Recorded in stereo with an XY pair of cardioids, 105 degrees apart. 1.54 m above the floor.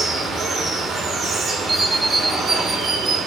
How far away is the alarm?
About 1.9 m.